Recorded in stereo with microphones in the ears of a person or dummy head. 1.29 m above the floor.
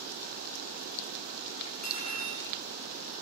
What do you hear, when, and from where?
1.6 s cutlery clinking: 40° left (ahead or behind), 8 m